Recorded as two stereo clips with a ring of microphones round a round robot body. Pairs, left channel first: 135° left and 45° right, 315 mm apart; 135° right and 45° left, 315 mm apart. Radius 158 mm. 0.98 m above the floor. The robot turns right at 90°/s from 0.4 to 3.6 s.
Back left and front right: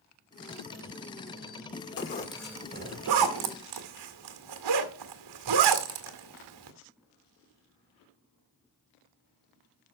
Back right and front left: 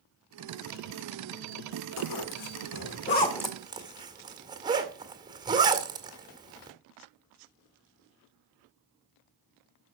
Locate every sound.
2.0 s a zipper: straight behind, 1.9 m; by 6.7 s 35° right, 1.9 m